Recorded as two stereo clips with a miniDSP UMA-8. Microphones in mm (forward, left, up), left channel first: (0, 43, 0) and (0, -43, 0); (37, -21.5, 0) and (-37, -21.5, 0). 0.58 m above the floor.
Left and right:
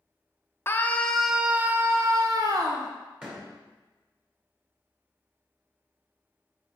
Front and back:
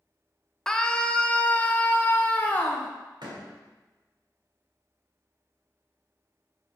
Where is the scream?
75° left, 0.6 m; by 2.9 s 65° right, 1.1 m.